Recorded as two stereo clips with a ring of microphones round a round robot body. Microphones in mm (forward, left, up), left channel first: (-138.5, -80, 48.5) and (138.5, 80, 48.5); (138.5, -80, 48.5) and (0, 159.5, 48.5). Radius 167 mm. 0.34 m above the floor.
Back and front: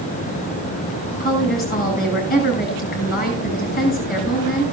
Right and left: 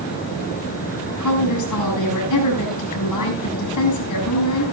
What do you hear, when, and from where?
1.2 s a woman speaking: 85° right, 6.5 m